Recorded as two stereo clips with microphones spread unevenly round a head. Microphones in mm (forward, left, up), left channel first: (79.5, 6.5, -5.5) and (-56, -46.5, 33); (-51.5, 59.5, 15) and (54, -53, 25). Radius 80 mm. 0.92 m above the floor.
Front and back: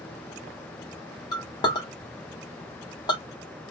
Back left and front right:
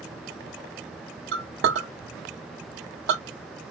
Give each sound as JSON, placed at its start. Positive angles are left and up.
{"t": 1.3, "sound": "a clink", "azimuth_deg": -40, "distance_m": 1.3}